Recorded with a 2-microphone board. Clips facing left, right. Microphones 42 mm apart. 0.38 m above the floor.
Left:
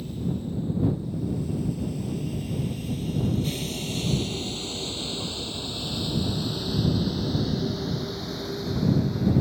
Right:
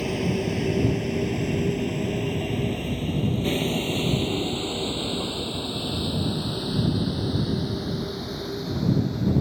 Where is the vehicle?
80° right; by 9.4 s centre (ahead or behind).